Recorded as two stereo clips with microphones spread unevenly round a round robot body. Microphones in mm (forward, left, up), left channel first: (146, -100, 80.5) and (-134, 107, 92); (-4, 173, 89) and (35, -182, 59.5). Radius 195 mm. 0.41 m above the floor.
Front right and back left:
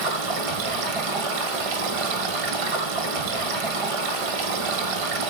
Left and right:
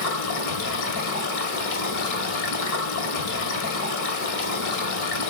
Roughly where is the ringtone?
No ringtone in this recording.